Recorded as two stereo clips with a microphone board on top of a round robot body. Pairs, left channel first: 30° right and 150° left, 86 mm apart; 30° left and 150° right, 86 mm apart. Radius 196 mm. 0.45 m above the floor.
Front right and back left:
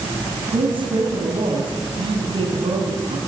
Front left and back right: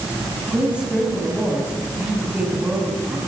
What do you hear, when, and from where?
0.5 s a woman speaking: 135° left, 5 m